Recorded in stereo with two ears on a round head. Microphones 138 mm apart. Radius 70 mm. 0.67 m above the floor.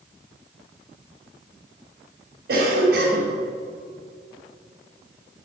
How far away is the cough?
About 3 m.